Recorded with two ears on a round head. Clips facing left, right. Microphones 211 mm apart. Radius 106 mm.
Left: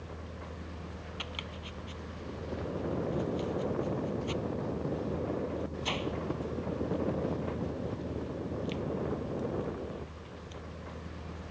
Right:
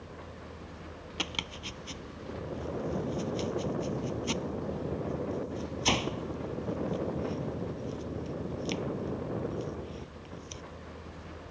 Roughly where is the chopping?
Right.